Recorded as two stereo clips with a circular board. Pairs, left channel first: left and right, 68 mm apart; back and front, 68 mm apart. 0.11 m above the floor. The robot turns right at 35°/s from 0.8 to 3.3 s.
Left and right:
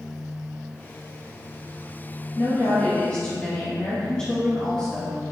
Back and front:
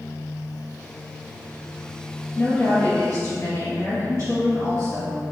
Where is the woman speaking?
120° left, 1.9 m; by 5.2 s 155° left, 1.9 m.